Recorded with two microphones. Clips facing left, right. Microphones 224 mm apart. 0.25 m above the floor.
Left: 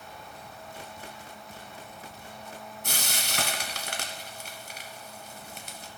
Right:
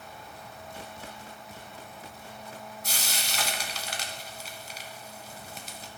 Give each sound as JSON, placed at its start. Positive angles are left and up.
{"t": 2.8, "sound": "frying", "side_deg": 55, "distance_m": 1.0}